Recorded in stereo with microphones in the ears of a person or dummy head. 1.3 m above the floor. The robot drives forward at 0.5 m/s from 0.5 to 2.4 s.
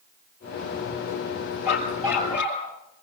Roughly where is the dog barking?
Centre.